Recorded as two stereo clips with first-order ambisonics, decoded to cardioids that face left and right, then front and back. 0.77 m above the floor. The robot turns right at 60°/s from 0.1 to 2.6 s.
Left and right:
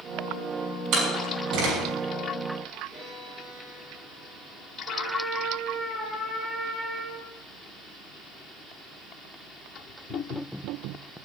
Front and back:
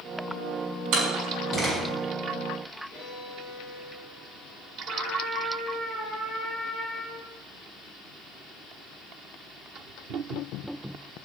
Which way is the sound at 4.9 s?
50° right.